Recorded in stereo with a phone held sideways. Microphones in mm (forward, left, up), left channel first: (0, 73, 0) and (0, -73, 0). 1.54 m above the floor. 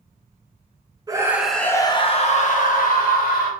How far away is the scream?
About 0.6 m.